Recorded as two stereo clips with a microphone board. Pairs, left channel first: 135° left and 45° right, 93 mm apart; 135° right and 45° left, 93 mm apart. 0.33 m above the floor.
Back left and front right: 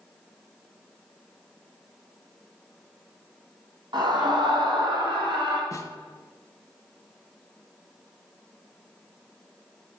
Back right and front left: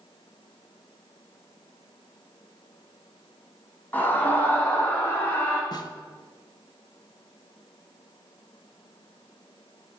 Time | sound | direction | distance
3.9 | a scream | 70° right | 2.5 m
5.7 | a snare drum | 175° right | 0.7 m